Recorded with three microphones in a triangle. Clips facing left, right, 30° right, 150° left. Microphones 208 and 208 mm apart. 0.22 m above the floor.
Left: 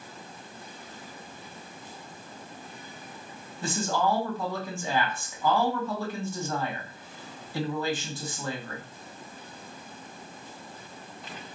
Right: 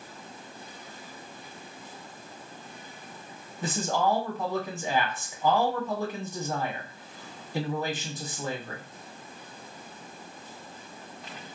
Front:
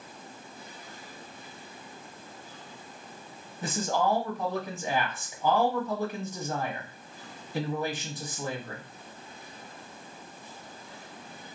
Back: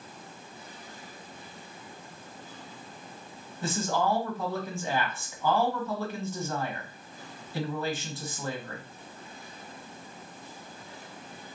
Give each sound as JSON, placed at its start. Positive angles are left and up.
{"t": 3.6, "sound": "a man speaking", "azimuth_deg": -65, "distance_m": 1.0}